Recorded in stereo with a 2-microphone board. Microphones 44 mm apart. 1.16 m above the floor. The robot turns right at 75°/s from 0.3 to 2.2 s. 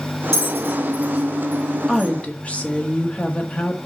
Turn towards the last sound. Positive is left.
turn(degrees=30)  # may be behind; listen again after turning